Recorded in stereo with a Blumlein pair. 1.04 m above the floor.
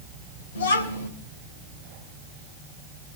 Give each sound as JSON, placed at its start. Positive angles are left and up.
{"t": 0.6, "sound": "a child speaking", "azimuth_deg": 65, "distance_m": 3.0}